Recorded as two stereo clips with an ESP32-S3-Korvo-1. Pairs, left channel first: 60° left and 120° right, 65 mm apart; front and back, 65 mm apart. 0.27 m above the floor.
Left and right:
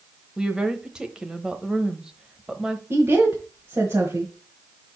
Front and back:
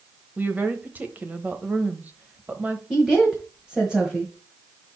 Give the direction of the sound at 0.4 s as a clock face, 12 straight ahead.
6 o'clock.